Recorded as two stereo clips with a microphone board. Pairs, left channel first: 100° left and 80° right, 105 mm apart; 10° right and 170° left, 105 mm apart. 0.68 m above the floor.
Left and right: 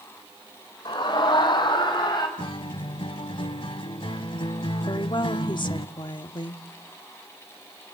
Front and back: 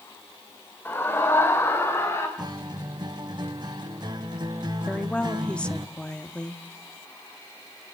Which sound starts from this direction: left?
A woman speaking, at 4.9 s.